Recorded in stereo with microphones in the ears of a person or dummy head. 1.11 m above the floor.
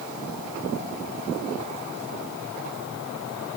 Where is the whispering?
No whispering in this recording.